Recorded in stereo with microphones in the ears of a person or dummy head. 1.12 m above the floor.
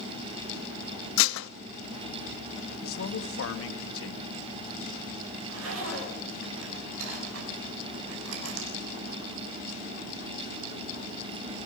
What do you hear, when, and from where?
1.2 s dishes clattering: 75° left (ahead or behind), 0.9 m
2.8 s a man speaking: 70° left (ahead or behind), 2 m
5.3 s a zipper: 80° right, 6.5 m